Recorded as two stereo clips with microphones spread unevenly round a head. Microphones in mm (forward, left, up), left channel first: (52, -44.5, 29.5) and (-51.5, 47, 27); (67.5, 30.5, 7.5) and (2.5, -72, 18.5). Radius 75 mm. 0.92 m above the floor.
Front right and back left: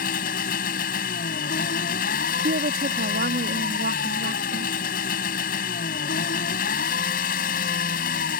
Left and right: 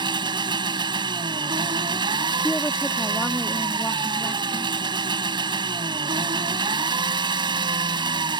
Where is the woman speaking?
140° left.